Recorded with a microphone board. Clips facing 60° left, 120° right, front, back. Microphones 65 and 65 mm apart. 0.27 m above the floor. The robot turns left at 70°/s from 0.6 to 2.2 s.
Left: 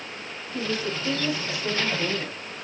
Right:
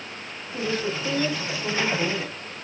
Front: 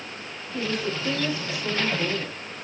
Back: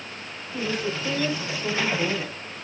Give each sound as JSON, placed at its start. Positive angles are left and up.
{"t": 0.5, "sound": "a woman speaking", "azimuth_deg": -85, "distance_m": 1.1}